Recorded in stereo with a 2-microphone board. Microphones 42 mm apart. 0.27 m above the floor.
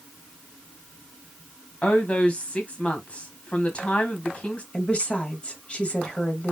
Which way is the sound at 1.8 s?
30° left (ahead or behind).